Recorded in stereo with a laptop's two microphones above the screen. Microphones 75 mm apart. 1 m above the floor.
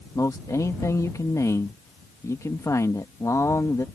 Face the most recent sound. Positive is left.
turn(degrees=45)  # may be behind; listen again after turning